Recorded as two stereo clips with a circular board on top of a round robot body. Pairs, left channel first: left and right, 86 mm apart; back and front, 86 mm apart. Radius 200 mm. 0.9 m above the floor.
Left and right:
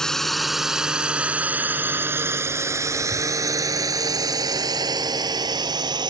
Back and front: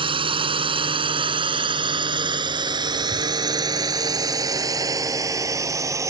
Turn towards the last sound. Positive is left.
turn(degrees=-55)